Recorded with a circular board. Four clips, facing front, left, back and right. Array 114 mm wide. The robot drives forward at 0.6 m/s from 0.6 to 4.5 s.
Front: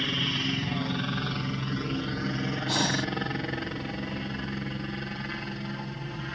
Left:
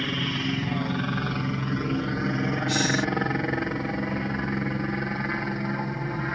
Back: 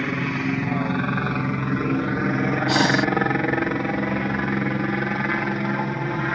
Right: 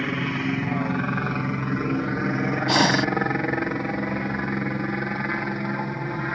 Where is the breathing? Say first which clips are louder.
Right 8 dB, back 9 dB; 115° right.